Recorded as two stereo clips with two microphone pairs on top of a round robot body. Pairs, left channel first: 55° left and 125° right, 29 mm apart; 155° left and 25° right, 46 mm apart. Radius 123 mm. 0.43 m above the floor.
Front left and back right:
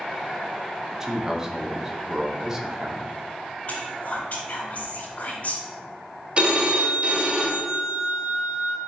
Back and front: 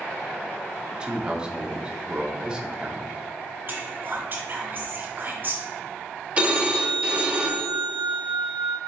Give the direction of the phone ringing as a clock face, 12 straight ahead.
3 o'clock.